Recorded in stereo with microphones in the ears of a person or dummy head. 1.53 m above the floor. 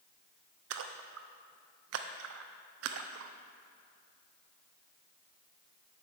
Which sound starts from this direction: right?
A splash, at 0.7 s.